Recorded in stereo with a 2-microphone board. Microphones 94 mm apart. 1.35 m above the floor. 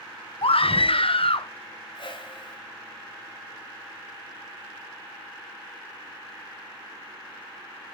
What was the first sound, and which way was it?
A scream, 75° left (ahead or behind).